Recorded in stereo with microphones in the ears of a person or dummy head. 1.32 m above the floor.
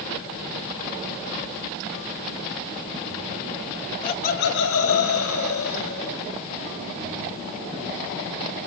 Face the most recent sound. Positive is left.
turn(degrees=65)  # may be behind; listen again after turning